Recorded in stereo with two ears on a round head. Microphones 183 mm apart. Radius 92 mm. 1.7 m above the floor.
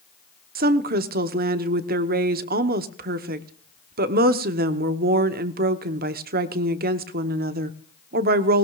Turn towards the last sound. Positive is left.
turn(degrees=-50)  # may be behind; listen again after turning